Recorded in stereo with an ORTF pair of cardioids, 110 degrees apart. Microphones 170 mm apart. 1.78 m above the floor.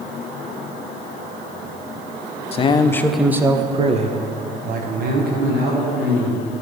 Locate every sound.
2.5 s a man speaking: 35° left, 0.7 m; by 6.6 s 70° right, 2.5 m